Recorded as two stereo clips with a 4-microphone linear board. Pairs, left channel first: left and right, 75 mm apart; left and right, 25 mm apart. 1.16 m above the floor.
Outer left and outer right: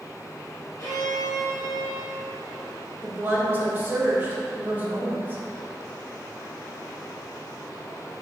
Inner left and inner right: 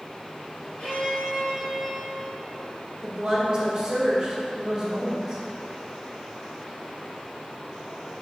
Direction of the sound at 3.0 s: 25° right (ahead or behind).